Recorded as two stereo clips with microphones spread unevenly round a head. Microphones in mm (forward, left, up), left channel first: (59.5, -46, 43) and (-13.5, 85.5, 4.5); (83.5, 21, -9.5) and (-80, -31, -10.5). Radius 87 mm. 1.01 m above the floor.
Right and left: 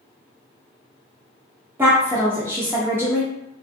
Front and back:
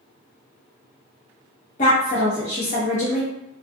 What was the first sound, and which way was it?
A woman speaking, 55° left.